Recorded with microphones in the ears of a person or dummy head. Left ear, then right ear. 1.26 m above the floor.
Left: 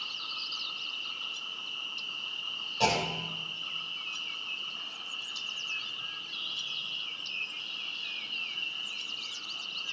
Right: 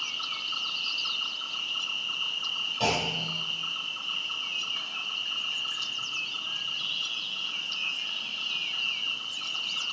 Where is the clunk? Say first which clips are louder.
Left 1 dB; 25° left (ahead or behind), 4 m.